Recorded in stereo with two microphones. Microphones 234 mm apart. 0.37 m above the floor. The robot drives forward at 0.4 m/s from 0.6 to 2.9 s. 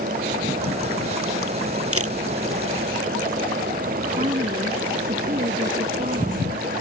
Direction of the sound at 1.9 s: 75° right (ahead or behind).